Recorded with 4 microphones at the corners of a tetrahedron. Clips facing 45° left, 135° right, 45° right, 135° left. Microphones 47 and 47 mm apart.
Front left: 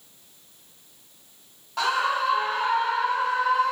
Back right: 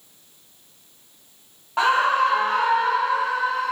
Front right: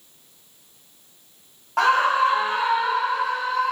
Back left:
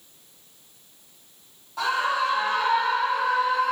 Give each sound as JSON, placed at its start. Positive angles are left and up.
{"t": 1.8, "sound": "a scream", "azimuth_deg": -70, "distance_m": 0.9}